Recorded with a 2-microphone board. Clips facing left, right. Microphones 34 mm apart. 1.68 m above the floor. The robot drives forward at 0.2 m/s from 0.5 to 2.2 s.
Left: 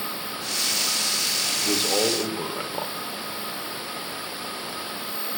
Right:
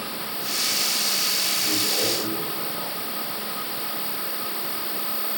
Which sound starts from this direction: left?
A man speaking, at 1.6 s.